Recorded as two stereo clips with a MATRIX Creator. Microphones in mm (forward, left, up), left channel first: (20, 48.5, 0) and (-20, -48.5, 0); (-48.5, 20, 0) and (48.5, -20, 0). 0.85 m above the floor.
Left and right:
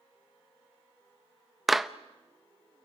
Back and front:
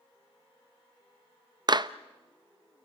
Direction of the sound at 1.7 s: 25° right.